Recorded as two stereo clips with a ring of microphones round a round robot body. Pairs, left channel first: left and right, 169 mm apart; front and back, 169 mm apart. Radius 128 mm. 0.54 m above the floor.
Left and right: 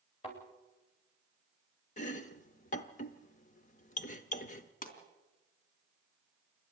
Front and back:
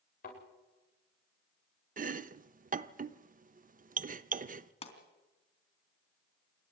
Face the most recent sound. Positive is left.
turn(degrees=55)